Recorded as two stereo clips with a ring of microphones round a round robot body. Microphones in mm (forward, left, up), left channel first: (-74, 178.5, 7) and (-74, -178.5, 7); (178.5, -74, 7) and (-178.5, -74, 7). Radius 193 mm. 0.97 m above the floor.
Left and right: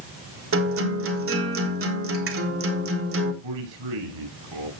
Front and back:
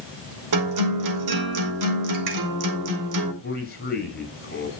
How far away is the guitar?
About 3.5 m.